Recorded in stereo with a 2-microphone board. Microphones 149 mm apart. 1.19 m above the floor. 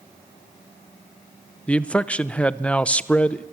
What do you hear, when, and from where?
1.7 s a man speaking: 10° left (ahead or behind), 0.7 m